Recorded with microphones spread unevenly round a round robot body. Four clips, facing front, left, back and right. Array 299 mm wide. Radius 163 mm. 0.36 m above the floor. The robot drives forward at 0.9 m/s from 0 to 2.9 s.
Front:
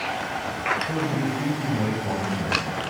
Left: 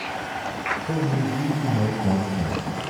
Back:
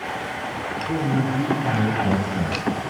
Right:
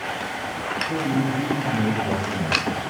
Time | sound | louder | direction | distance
0.9 | a man speaking | right 3 dB, back 3 dB | 95° left | 2.5 m